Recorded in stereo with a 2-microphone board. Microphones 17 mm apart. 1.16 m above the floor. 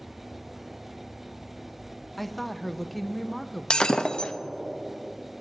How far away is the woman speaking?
About 0.6 m.